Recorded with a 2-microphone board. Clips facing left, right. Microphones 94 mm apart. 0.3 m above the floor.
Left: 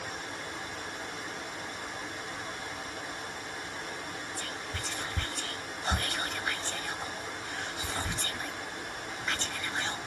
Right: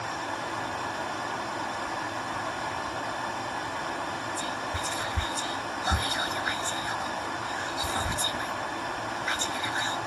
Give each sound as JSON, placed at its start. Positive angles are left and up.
{"t": 0.0, "sound": "running water", "side_deg": -65, "distance_m": 0.8}
{"t": 4.4, "sound": "whispering", "side_deg": -15, "distance_m": 1.0}